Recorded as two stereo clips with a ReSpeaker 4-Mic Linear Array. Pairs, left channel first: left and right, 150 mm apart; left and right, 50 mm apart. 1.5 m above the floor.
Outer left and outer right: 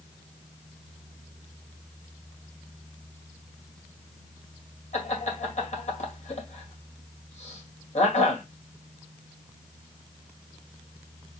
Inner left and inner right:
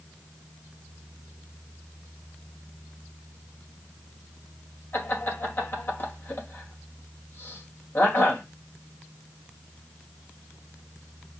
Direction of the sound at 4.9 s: 50° left (ahead or behind).